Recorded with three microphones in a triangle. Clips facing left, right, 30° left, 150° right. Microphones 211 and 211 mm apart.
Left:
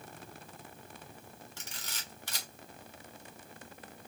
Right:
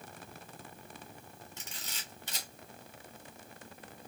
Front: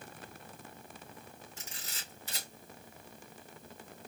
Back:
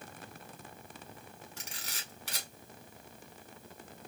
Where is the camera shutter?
160° right, 1.7 m.